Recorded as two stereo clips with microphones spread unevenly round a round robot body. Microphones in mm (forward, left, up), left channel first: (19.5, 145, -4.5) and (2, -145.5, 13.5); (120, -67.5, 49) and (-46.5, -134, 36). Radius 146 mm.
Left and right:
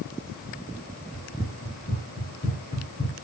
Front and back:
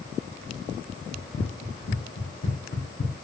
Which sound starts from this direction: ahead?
Running footsteps, at 1.1 s.